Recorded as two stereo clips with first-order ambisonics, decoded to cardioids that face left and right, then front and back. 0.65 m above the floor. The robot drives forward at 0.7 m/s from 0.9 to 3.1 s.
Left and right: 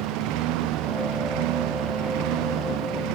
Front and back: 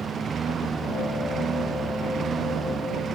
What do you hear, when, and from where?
0.0 s a lawn mower: 115° right